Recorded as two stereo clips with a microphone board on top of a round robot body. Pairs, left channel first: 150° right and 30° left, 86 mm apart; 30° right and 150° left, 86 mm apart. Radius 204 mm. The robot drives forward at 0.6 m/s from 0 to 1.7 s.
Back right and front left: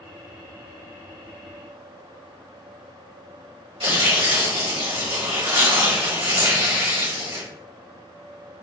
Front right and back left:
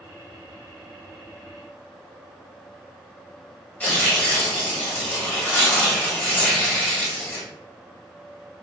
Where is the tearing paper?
40° left, 1.5 m.